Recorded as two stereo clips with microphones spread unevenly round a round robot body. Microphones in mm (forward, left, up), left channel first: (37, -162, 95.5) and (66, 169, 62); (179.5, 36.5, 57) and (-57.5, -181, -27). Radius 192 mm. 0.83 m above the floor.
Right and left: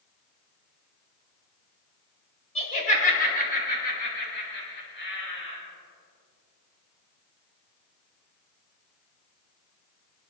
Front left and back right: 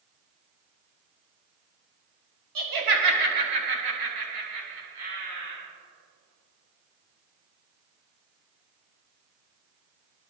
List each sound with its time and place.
2.5 s laughter: 165° right, 4.5 m; by 5.6 s 155° right, 8.5 m